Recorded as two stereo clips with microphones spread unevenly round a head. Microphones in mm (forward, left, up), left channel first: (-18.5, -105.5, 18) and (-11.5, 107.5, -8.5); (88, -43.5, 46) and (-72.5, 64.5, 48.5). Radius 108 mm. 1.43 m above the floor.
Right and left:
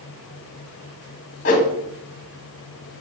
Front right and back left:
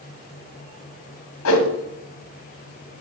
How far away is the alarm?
I don't hear an alarm.